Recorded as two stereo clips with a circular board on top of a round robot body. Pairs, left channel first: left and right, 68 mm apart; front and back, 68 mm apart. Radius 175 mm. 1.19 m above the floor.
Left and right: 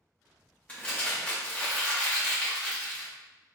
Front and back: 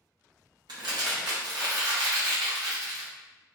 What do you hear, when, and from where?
0.7 s crumpling: 160° left, 0.9 m